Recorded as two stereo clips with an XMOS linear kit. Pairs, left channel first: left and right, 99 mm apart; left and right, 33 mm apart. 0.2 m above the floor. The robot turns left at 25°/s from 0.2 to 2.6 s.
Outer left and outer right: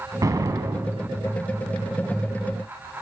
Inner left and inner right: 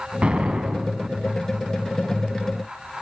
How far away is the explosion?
About 0.8 m.